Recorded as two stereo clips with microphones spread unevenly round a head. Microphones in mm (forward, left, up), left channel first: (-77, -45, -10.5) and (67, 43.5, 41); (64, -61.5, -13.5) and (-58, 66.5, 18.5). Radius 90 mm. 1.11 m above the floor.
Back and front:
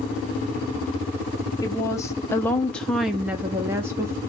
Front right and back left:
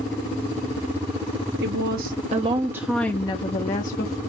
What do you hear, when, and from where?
1.6 s a woman speaking: 160° left, 0.8 m; by 4.2 s 50° right, 0.9 m